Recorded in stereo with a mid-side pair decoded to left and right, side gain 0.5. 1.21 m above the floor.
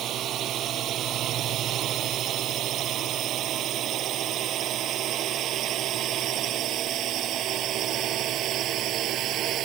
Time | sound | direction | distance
0.0 | a drone | 60° right | ?